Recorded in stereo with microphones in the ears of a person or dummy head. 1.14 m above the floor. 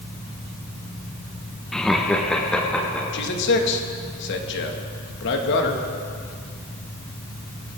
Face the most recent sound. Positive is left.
turn(degrees=65)  # may be behind; listen again after turning